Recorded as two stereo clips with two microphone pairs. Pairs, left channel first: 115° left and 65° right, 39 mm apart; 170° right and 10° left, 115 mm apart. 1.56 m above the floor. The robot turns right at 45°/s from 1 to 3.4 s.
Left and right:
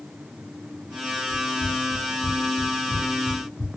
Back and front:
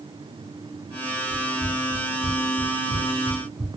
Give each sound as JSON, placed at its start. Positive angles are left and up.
{"t": 1.3, "sound": "running footsteps", "azimuth_deg": 55, "distance_m": 1.9}